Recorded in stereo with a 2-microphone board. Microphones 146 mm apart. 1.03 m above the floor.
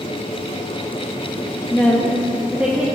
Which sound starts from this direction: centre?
A woman speaking, at 1.7 s.